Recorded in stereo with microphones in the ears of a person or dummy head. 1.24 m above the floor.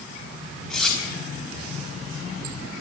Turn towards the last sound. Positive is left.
turn(degrees=5)  # may be behind; listen again after turning